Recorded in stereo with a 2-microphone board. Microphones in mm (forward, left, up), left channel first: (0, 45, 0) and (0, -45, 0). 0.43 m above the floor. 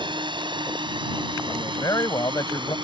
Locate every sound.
0.0 s a drone: 55° right (ahead or behind)
1.5 s a man speaking: 40° left (ahead or behind)